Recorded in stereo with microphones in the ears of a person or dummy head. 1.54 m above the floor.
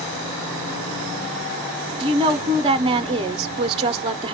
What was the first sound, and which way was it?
A woman speaking, 25° right (ahead or behind).